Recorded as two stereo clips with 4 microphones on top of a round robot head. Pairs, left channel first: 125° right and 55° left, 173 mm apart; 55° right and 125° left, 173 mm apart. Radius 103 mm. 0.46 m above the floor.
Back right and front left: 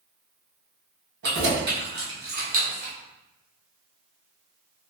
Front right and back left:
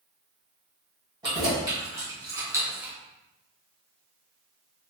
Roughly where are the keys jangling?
Ahead left.